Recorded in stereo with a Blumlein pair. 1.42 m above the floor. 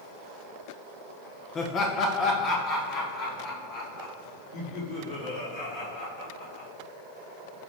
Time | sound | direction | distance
1.6 | laughter | 25° left | 1.0 m